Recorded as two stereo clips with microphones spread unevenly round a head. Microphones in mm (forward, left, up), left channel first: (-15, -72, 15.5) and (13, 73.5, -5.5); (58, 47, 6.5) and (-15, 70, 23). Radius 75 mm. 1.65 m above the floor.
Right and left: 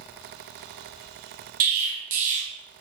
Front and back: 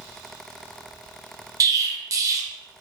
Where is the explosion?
115° left, 0.5 m.